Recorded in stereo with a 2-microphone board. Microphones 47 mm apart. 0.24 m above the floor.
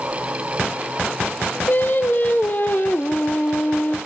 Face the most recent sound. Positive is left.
turn(degrees=40)  # may be behind; listen again after turning